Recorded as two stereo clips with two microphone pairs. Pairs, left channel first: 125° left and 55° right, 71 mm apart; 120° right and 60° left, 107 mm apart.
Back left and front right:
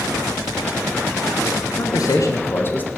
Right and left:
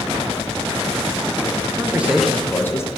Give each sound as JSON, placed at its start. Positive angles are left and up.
{"t": 1.7, "sound": "a man speaking", "azimuth_deg": 125, "distance_m": 1.4}